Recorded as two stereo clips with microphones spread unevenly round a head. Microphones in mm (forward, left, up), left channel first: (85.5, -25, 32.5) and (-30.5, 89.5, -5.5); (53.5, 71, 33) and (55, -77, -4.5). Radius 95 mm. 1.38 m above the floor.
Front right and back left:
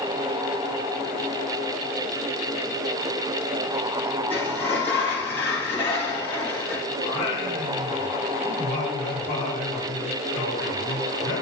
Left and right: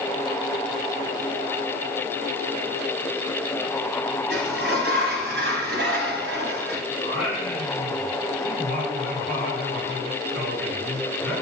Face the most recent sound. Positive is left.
turn(degrees=-125)